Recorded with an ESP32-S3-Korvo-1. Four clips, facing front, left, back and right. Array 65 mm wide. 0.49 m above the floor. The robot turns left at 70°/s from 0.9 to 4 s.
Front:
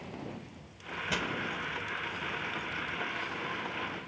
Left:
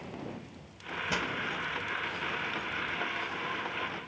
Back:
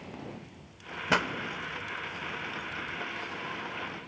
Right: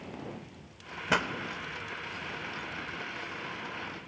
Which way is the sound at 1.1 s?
140° right.